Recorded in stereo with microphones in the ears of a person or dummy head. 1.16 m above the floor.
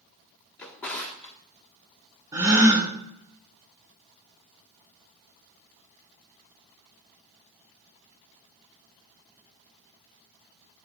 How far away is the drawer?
About 1.0 m.